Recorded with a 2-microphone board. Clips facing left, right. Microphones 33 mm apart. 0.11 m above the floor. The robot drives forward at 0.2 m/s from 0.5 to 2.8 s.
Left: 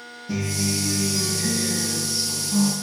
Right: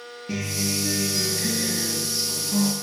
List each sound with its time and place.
0.3 s a guitar: 50° right (ahead or behind), 1.2 m; by 2.7 s 40° right (ahead or behind), 1.3 m